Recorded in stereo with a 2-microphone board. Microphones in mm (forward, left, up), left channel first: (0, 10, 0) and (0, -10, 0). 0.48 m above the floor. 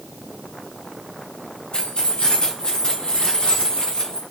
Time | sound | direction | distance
1.7 | keys jangling | 60° left (ahead or behind) | 1.8 m